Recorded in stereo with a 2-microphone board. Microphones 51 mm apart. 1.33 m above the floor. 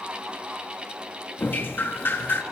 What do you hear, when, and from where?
1.4 s dripping: 45° left (ahead or behind), 1.7 m